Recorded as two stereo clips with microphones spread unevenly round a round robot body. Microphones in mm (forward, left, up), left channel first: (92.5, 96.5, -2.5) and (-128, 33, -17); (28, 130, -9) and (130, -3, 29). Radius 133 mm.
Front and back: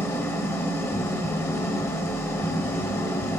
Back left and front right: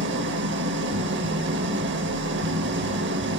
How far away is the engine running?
About 1.8 m.